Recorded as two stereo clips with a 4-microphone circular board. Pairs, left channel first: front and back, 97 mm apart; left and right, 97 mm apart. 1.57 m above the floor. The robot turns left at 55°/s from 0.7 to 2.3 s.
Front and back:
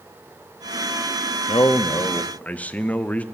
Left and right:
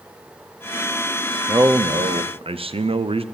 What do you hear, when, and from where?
1.5 s a man speaking: 30° right, 0.5 m; by 3.2 s 75° right, 0.5 m